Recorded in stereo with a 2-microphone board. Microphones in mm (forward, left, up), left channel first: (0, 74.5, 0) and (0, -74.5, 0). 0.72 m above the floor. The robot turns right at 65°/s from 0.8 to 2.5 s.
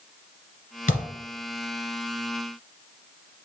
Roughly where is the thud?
Left.